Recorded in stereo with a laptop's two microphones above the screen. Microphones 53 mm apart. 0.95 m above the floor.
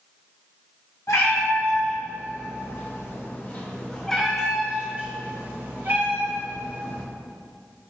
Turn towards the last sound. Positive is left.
turn(degrees=-60)  # may be behind; listen again after turning